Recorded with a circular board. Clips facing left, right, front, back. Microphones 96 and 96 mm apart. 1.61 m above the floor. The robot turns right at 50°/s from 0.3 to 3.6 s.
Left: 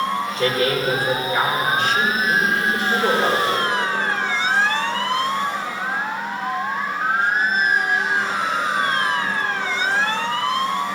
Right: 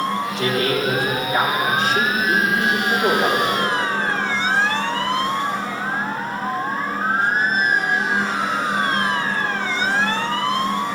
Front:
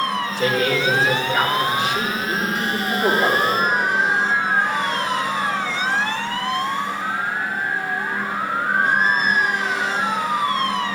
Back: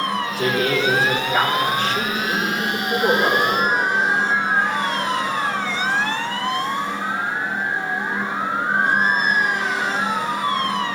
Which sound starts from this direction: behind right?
A man speaking, at 0.4 s.